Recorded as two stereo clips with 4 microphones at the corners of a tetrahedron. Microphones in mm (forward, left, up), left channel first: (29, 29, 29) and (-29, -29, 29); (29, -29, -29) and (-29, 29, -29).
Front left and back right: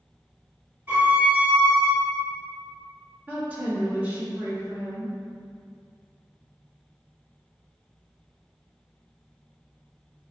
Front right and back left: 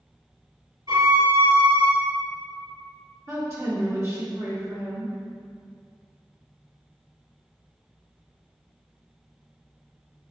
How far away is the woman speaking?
About 1.1 m.